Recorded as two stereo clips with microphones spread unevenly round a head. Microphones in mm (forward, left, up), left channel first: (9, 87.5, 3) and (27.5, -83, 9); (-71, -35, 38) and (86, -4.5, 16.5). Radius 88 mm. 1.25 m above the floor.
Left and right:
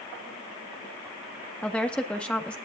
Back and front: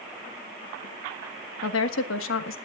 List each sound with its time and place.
1.6 s a woman speaking: straight behind, 1.5 m